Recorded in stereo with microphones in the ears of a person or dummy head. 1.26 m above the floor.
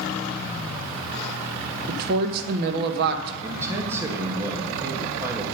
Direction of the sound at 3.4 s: 15° right (ahead or behind).